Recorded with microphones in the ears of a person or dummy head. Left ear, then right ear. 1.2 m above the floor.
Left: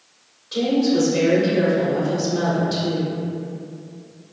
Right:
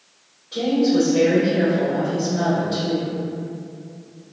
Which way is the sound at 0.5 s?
60° left (ahead or behind).